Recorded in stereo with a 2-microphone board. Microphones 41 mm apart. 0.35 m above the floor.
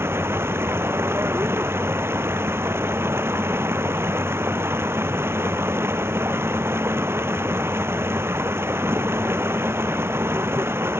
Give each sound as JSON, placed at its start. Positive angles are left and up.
{"t": 0.0, "sound": "running water", "side_deg": -80}